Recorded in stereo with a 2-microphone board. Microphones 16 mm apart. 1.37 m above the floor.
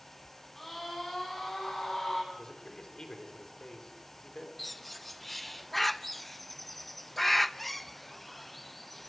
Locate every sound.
0.6 s a scream: 20° left (ahead or behind), 9 m; by 2.2 s 30° left (ahead or behind), 8.5 m
2.3 s a man speaking: 40° left (ahead or behind), 4 m
4.6 s a bird: 5° left (ahead or behind), 0.6 m